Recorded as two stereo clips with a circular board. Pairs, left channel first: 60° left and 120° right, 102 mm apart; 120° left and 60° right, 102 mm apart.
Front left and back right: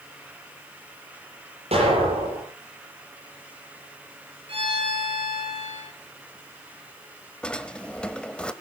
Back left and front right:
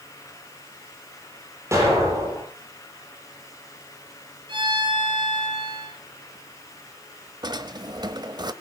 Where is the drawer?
20° right, 1.1 m.